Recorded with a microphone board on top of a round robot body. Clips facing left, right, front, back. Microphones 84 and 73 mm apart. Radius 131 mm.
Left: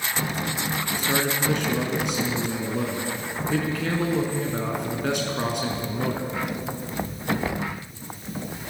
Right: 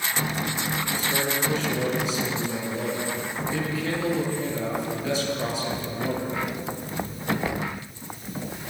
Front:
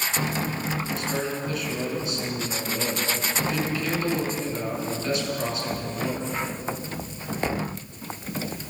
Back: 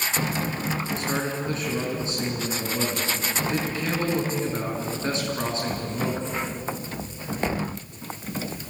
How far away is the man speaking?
About 6 m.